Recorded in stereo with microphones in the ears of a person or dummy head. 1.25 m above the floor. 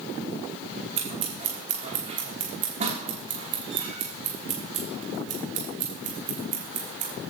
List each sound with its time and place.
1.0 s scissors: 40° right (ahead or behind), 2.5 m